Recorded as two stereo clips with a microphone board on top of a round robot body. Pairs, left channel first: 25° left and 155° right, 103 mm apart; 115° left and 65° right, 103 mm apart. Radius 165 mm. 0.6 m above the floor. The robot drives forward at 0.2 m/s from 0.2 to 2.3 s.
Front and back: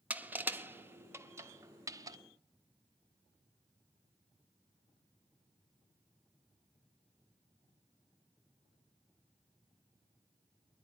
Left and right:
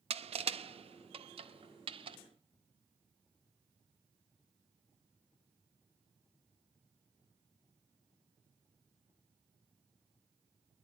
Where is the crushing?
80° right, 1.3 m; by 2.2 s 100° right, 1.3 m.